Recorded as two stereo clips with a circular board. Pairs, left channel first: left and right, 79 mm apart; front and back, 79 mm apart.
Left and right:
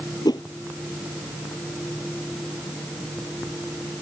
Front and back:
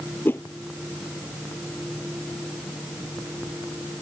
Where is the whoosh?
65° left.